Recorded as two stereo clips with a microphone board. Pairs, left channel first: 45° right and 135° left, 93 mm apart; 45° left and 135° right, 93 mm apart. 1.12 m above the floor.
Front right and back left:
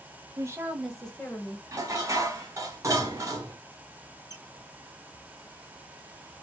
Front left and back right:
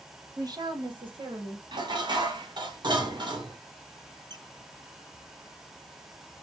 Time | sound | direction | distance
0.4 | a woman speaking | straight behind | 1.0 m
1.7 | dishes clattering | 170° right | 0.8 m
4.3 | a squeak | 165° right | 0.5 m